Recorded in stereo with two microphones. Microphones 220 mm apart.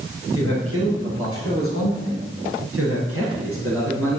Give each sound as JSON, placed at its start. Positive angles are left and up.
{"t": 0.3, "sound": "a man speaking", "side_deg": -65, "distance_m": 4.0}